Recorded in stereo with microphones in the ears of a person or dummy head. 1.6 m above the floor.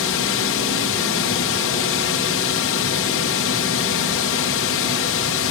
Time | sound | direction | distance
0.0 | a drone | 65° left (ahead or behind) | ?